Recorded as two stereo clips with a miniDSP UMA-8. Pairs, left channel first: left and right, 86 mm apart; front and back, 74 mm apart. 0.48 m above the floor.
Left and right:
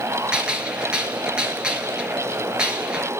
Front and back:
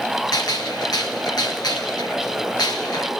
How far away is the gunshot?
About 3 m.